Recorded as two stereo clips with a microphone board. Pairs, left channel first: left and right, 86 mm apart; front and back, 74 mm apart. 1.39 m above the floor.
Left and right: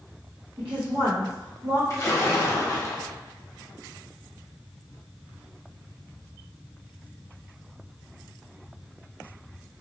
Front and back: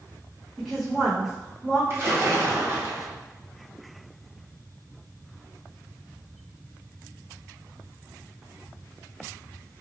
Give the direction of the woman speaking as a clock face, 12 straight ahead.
3 o'clock.